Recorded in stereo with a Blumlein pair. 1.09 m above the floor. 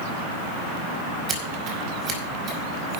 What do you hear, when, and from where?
1.3 s scissors: 20° right, 4.5 m